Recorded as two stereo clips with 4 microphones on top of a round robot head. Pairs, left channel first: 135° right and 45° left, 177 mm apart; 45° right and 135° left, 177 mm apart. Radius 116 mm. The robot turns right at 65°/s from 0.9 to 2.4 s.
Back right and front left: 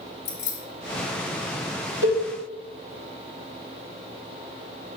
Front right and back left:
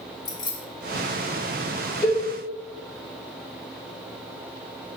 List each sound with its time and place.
0.2 s keys jangling: 115° right, 1.7 m
2.0 s a cowbell: 105° right, 2.5 m; by 2.2 s 90° right, 2.5 m